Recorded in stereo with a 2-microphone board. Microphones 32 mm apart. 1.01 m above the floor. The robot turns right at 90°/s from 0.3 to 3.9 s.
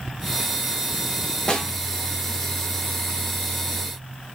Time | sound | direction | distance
1.5 | a snare drum | 30° left (ahead or behind) | 0.8 m